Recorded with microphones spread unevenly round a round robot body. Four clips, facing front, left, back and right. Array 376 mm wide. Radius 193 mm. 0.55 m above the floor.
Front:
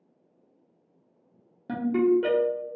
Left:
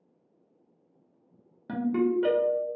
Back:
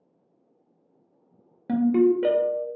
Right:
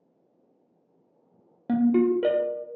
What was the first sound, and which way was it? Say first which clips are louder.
A ringtone: right 5 dB, back 3 dB; 95° right.